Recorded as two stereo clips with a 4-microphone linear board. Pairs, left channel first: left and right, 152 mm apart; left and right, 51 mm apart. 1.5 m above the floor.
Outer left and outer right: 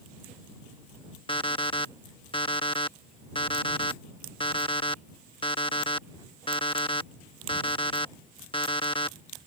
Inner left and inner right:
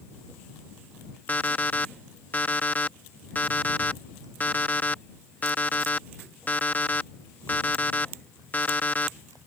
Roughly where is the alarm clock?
Left.